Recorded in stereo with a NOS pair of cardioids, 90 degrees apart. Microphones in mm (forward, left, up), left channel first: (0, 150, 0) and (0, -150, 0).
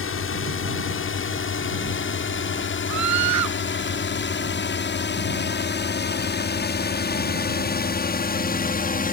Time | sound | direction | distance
0.0 | a drone | 45° left | ?
2.9 | a scream | 70° right | ?